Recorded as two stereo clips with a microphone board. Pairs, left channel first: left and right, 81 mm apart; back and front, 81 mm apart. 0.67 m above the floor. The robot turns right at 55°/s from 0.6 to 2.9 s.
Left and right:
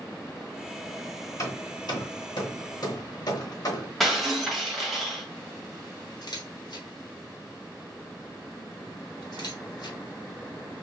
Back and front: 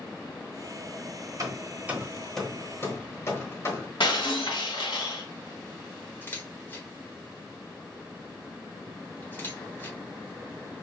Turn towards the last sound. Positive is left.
turn(degrees=115)